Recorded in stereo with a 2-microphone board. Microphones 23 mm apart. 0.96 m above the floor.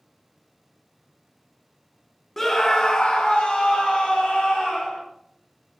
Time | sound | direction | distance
2.4 | a scream | 10° left (ahead or behind) | 0.7 m